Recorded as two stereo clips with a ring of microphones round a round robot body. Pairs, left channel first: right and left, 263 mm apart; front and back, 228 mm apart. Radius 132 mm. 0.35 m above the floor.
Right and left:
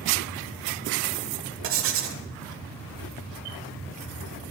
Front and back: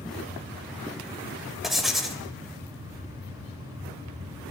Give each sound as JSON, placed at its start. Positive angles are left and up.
{"t": 1.6, "sound": "writing", "azimuth_deg": 90, "distance_m": 1.2}